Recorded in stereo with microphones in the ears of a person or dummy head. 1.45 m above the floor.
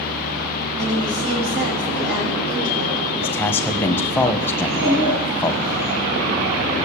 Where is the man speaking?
5° left (ahead or behind), 1.5 m.